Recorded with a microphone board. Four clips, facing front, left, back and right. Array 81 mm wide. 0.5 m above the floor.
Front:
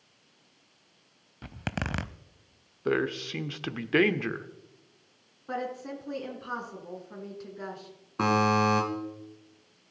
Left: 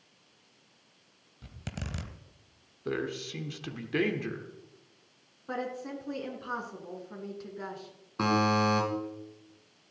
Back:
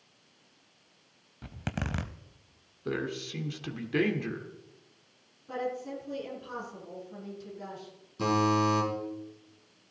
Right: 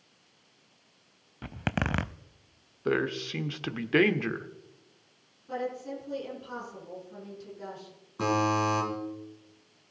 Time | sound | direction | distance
1.4 | a zipper | 75° right | 0.5 m
2.9 | a man speaking | 40° right | 1.1 m
5.5 | a woman speaking | 45° left | 5.5 m
8.2 | a buzzer | 20° left | 4.5 m